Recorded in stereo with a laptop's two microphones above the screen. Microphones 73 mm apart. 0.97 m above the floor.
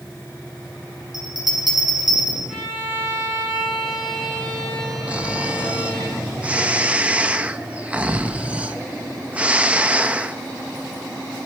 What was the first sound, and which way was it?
A bell, 70° right (ahead or behind).